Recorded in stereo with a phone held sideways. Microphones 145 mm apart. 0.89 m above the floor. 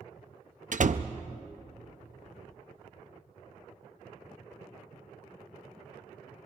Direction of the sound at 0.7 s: 60° right (ahead or behind).